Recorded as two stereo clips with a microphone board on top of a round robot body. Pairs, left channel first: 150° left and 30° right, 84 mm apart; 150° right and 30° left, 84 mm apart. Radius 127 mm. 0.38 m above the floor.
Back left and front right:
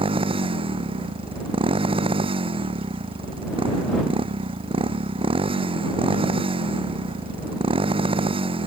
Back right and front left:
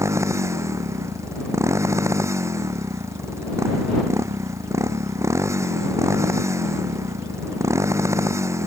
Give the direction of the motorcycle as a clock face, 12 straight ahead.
1 o'clock.